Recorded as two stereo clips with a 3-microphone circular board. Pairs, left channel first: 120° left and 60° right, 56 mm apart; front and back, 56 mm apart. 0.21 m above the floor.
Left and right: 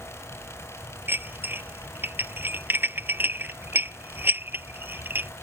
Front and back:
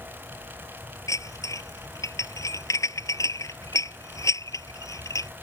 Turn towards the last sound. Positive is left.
turn(degrees=-5)